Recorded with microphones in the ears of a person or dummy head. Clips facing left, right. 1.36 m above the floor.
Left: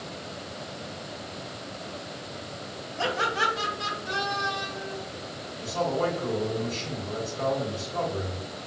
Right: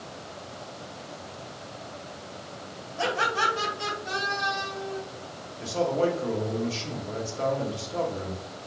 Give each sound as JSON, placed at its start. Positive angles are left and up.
{"t": 3.0, "sound": "laughter", "side_deg": -35, "distance_m": 1.8}
{"t": 5.6, "sound": "a man speaking", "side_deg": -35, "distance_m": 1.1}